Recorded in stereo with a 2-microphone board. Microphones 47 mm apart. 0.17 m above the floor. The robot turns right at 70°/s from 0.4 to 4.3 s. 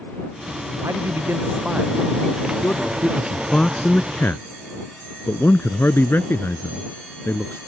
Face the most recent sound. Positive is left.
turn(degrees=55)  # may be behind; listen again after turning